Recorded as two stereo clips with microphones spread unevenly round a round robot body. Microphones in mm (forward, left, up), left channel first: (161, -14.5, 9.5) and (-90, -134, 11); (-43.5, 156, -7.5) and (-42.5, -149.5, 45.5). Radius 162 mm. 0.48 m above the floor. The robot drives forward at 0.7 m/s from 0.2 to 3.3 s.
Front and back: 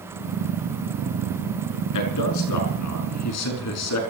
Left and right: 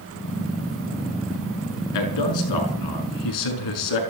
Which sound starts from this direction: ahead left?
A man speaking, at 1.9 s.